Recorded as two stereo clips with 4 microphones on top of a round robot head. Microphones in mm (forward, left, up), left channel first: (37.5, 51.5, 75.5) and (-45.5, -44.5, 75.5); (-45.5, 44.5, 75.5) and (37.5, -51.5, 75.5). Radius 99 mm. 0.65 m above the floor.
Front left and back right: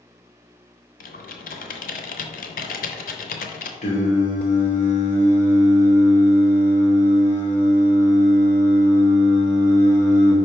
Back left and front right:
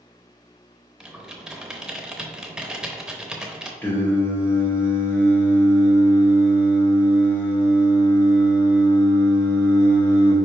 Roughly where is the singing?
Ahead left.